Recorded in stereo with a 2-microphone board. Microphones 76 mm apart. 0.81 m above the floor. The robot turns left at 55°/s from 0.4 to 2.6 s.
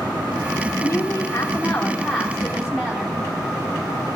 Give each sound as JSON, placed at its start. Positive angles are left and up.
{"t": 0.8, "sound": "a woman speaking", "azimuth_deg": 85, "distance_m": 1.0}